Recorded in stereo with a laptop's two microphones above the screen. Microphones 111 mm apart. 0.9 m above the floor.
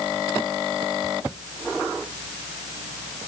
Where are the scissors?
I don't hear scissors.